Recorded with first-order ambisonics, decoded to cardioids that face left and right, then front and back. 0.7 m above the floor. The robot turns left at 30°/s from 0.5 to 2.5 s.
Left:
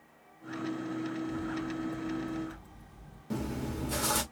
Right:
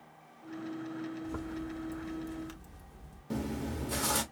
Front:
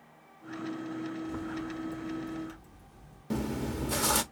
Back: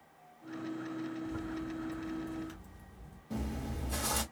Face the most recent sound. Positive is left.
turn(degrees=0)